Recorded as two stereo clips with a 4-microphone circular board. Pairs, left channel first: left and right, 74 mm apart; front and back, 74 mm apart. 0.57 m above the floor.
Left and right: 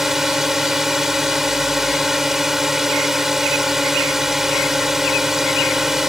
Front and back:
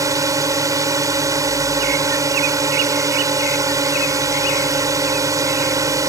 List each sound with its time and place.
0.0 s a drone: 175° right